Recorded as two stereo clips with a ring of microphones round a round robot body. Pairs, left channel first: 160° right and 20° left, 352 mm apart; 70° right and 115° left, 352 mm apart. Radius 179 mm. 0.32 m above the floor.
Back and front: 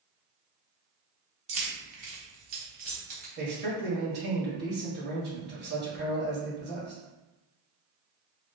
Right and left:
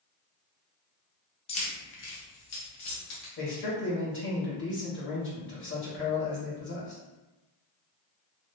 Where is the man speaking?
25° right, 1.7 m.